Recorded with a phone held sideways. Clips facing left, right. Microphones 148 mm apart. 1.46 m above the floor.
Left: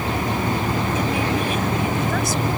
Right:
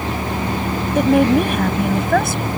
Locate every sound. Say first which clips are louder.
0.9 s a woman speaking: right 9 dB; 60° right (ahead or behind)